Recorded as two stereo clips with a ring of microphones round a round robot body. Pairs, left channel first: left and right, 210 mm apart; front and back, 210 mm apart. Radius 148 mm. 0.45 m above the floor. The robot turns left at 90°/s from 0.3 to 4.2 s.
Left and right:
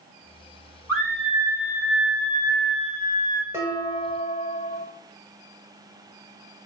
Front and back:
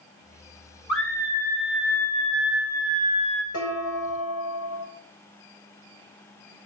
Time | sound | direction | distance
0.9 | a scream | 120° right | 2 m
3.5 | dishes clattering | 10° right | 5.5 m